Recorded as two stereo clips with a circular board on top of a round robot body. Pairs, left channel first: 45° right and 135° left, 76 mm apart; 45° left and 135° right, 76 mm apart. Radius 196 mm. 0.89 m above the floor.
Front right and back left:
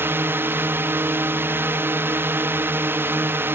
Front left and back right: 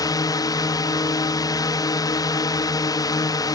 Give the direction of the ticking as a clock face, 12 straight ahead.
No ticking in this recording.